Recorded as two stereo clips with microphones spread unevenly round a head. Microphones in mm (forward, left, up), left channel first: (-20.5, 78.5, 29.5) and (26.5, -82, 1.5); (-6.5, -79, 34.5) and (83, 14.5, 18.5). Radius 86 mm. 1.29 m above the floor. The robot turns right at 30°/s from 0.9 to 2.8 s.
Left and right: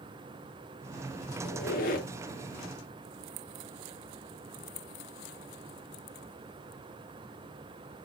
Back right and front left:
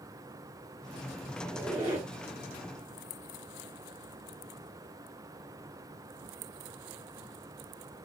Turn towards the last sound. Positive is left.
turn(degrees=150)